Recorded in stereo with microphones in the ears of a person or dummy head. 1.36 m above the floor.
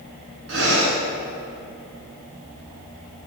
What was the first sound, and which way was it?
Breathing, 65° right (ahead or behind).